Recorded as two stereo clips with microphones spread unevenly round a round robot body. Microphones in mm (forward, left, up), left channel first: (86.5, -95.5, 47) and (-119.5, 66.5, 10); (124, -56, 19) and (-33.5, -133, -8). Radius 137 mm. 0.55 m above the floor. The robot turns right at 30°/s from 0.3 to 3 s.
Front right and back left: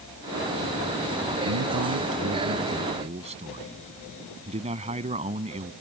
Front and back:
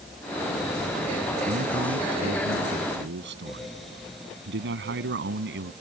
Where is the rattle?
No rattle in this recording.